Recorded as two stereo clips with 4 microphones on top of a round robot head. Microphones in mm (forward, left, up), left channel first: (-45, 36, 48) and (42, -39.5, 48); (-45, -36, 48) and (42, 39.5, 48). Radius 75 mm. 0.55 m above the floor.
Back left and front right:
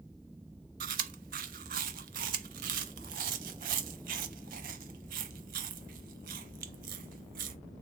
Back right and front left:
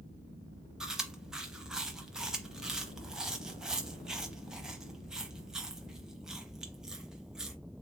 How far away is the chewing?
About 0.6 m.